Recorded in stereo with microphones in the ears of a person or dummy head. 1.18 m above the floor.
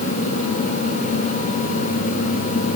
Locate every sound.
Only background noise.